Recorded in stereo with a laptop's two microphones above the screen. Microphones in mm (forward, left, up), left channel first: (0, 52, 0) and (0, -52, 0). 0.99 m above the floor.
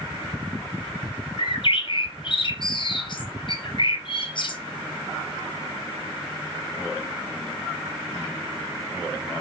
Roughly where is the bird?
Left.